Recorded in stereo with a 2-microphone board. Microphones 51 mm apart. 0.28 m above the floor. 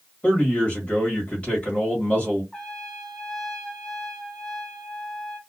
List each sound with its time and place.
0.2 s a man speaking: 25° left (ahead or behind), 1.6 m
2.5 s a trumpet: 10° left (ahead or behind), 1.2 m